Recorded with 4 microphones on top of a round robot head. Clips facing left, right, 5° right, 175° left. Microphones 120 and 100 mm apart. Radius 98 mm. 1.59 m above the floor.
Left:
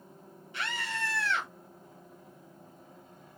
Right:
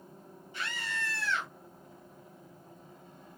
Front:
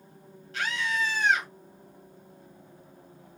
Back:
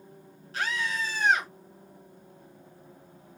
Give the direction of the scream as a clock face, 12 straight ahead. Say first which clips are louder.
Left 2 dB, front 1 dB; 9 o'clock.